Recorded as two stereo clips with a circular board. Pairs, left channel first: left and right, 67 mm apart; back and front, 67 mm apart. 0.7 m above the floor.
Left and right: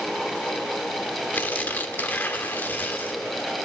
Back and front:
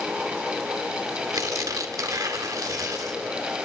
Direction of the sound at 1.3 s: 30° left.